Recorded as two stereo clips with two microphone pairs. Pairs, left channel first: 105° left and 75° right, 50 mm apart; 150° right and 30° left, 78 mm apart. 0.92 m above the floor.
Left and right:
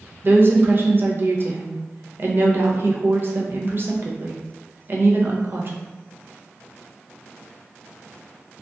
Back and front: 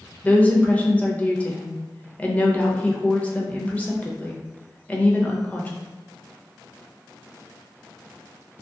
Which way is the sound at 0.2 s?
90° right.